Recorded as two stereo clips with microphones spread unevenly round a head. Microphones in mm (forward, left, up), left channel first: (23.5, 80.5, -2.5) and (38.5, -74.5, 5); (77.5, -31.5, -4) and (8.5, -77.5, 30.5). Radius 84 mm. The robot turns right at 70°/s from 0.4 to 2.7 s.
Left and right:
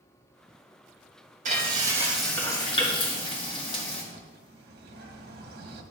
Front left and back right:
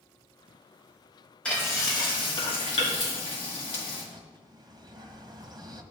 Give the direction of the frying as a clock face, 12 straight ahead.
2 o'clock.